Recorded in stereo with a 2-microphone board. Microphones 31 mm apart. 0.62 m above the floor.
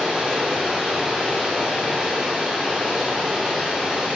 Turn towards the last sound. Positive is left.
turn(degrees=-15)  # may be behind; listen again after turning